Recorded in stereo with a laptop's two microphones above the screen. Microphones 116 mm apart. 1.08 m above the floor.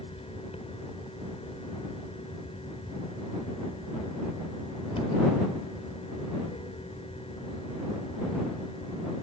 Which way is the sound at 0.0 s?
60° left (ahead or behind).